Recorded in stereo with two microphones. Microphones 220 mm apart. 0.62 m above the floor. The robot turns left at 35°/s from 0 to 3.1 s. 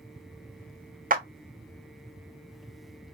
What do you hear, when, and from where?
1.1 s a clap: 40° right (ahead or behind), 0.6 m